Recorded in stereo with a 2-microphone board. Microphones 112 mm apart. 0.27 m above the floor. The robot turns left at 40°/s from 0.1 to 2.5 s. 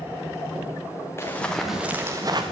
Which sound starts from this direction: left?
Running footsteps, at 1.2 s.